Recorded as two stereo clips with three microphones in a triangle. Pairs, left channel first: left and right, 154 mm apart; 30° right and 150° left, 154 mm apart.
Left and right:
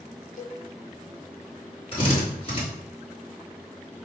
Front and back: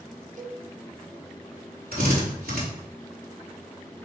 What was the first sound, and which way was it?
A cowbell, 115° left.